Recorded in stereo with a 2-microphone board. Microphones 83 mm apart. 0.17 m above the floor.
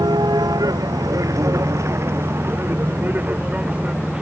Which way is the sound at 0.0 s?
55° right (ahead or behind).